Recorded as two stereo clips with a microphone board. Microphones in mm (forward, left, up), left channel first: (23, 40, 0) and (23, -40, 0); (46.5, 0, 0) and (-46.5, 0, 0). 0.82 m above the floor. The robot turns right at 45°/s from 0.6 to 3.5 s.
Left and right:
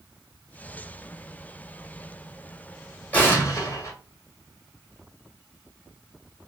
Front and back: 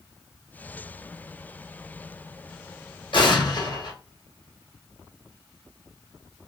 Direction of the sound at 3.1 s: 20° left.